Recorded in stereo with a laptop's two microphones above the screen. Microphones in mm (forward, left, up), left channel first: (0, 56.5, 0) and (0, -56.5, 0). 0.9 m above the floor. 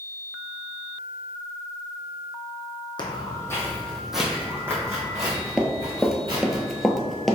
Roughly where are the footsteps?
Left.